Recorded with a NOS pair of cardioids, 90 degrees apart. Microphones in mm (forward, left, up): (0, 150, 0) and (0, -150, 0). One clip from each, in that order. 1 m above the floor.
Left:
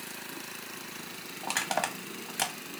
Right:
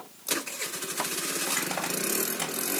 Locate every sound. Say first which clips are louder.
1.4 s crushing: left 3 dB; 30° left, 1.2 m